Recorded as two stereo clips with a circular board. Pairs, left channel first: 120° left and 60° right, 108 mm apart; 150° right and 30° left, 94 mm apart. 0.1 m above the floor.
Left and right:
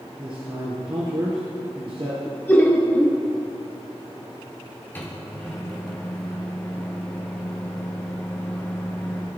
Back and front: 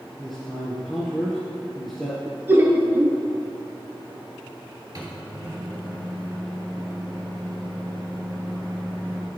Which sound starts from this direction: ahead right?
A man speaking, at 0.2 s.